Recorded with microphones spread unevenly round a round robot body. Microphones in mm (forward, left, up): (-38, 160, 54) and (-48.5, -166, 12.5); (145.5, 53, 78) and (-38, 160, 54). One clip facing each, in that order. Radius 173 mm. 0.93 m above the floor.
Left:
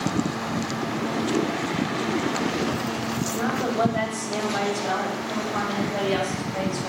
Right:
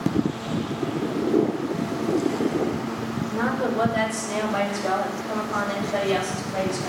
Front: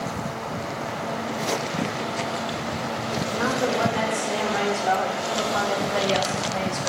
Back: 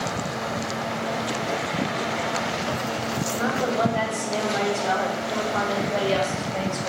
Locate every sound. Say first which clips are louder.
3.3 s a woman speaking: right 3 dB, front 1 dB; 105° right, 3.5 m